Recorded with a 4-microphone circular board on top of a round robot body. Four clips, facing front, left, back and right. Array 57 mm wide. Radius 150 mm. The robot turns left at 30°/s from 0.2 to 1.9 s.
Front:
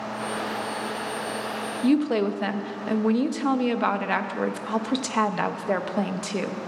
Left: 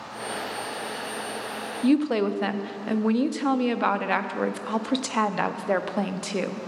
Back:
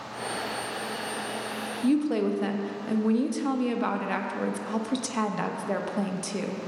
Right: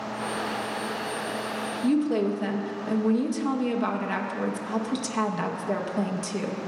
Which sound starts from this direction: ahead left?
A woman speaking, at 1.8 s.